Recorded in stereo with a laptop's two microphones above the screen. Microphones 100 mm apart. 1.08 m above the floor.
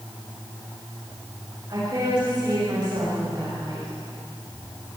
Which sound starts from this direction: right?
A woman speaking, at 1.7 s.